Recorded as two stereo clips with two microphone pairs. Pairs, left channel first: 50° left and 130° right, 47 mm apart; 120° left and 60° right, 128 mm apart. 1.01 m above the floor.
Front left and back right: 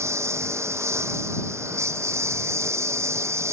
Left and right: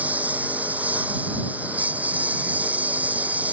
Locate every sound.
0.0 s a lawn mower: 140° right